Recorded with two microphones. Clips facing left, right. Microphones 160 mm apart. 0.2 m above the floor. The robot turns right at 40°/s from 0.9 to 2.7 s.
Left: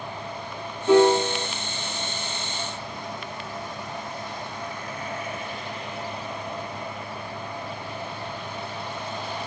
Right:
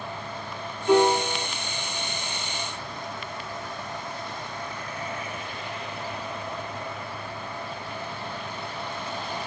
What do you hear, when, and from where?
0.9 s a piano: 50° left (ahead or behind), 2 m; by 1.5 s 70° left (ahead or behind), 2 m